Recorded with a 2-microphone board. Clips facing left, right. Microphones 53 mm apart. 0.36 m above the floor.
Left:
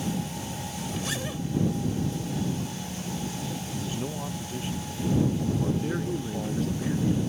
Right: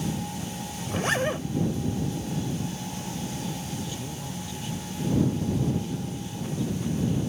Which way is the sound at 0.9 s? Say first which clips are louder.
Right 9 dB; 45° right (ahead or behind).